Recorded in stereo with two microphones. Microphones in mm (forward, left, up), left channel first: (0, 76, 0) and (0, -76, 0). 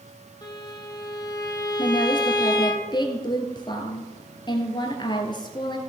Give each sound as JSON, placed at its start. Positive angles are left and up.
{"t": 0.4, "sound": "a violin", "side_deg": 30, "distance_m": 1.5}
{"t": 1.8, "sound": "a woman speaking", "side_deg": 30, "distance_m": 1.7}